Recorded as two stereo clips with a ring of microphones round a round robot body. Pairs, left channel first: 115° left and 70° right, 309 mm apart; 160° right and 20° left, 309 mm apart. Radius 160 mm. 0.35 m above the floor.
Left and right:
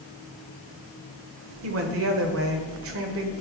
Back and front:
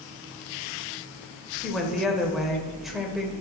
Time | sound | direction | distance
1.6 | a woman speaking | 65° right | 1.5 m